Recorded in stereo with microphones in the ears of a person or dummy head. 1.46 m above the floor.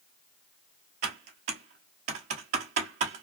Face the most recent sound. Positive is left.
turn(degrees=-45)  # may be behind; listen again after turning